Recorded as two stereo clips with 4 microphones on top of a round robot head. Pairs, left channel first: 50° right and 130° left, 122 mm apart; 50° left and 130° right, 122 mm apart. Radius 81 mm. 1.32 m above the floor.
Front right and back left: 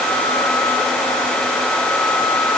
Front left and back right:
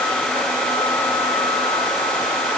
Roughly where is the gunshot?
I don't hear a gunshot.